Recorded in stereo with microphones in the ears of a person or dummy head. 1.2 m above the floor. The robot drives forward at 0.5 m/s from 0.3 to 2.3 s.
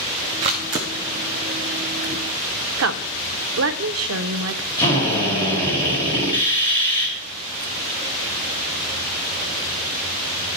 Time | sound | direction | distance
0.4 | a camera shutter | 20° right (ahead or behind) | 0.6 m
2.8 | a woman speaking | 70° right (ahead or behind) | 0.6 m
4.8 | a drill | 25° left (ahead or behind) | 2.5 m